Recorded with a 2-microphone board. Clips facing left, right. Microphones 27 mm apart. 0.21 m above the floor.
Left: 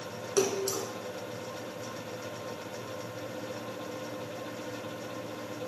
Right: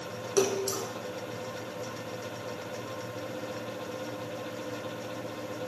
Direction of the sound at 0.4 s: 10° right (ahead or behind).